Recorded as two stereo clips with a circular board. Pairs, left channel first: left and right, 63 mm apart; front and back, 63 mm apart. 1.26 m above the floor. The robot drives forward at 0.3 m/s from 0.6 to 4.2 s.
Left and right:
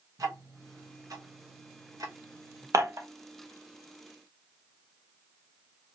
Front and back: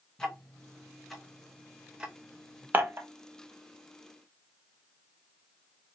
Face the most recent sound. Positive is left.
turn(degrees=-145)